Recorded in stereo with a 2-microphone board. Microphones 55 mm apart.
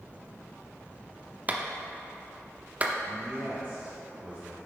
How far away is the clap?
About 0.6 m.